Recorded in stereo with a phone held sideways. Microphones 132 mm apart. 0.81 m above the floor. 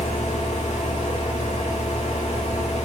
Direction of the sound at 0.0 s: 55° left (ahead or behind).